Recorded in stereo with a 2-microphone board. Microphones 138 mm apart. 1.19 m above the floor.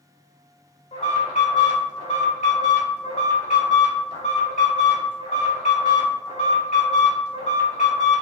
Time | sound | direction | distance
0.9 | an alarm | 60° left (ahead or behind) | 1.6 m